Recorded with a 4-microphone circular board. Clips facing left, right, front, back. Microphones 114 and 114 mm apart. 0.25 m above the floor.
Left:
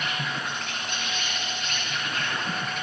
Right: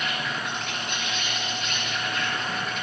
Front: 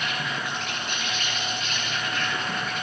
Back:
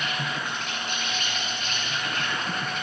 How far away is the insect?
About 4 m.